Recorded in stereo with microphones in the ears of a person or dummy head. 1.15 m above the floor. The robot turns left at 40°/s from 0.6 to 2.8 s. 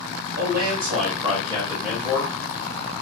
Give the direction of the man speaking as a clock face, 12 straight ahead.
4 o'clock.